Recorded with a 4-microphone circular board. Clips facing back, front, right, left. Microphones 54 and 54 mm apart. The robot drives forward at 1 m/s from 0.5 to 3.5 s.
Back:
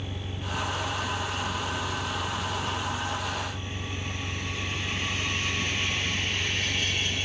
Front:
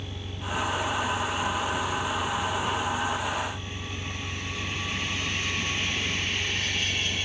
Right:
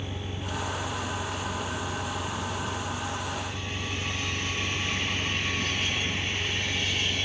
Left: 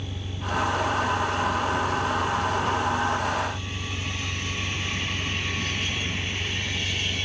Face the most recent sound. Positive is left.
turn(degrees=-150)